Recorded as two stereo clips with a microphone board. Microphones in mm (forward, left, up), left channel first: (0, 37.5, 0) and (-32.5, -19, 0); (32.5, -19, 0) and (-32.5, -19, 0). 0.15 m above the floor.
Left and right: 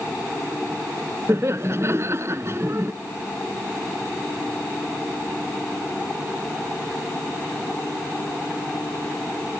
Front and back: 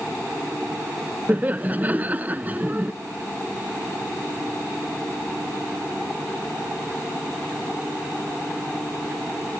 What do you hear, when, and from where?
1.3 s laughter: 130° right